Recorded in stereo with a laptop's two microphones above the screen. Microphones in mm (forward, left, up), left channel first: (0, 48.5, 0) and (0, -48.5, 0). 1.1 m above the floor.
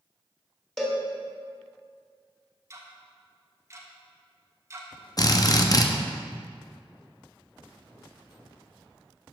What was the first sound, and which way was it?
A cowbell, centre (ahead or behind).